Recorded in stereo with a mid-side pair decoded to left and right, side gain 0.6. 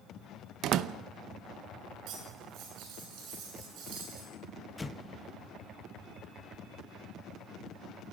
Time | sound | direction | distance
0.6 | a door slam | 60° right | 0.8 m
2.1 | cutlery clinking | 65° right | 7.5 m
4.8 | an explosion | 15° left | 1.4 m